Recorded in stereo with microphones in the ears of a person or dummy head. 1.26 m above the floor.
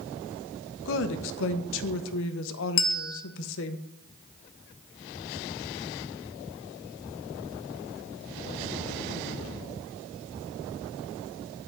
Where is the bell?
70° left (ahead or behind), 0.8 m.